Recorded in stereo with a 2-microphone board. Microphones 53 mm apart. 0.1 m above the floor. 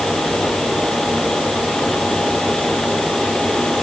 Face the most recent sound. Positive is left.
No sound to turn to.